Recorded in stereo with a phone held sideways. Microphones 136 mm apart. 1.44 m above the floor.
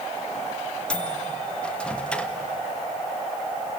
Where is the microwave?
5° left (ahead or behind), 1.5 m.